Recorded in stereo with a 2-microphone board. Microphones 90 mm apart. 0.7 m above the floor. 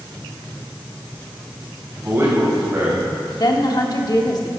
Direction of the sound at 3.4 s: 50° left (ahead or behind).